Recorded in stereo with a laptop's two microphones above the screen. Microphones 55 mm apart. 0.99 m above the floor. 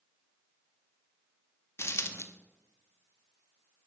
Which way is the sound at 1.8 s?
55° left (ahead or behind).